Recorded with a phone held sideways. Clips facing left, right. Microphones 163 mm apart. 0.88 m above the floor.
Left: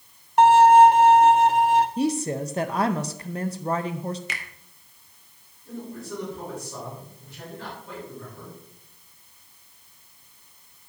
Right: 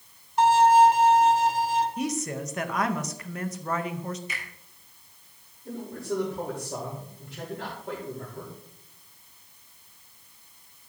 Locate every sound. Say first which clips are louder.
0.4 s a violin: left 5 dB; 60° left (ahead or behind), 0.6 m
2.0 s a woman speaking: left 6 dB; 30° left (ahead or behind), 0.5 m
4.3 s a finger snap: left 2 dB; 75° left (ahead or behind), 1.1 m
5.7 s a man speaking: right 3 dB; 75° right (ahead or behind), 3 m